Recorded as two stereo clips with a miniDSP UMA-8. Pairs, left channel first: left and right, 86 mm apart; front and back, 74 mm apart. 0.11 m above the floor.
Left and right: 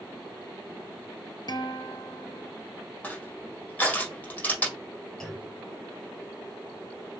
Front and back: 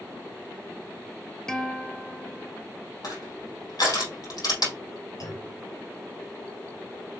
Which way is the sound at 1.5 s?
80° left.